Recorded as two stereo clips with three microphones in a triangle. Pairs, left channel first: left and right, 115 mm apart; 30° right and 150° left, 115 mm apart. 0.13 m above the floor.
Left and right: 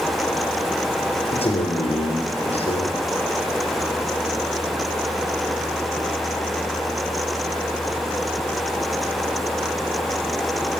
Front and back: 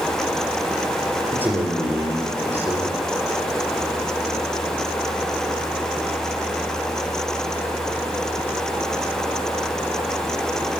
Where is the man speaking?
80° left, 3 m.